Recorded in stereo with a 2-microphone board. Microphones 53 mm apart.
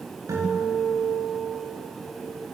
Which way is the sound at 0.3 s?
70° right (ahead or behind).